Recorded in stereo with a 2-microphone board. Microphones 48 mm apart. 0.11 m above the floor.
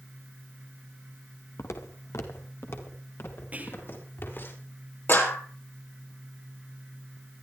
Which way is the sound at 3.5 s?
30° right (ahead or behind).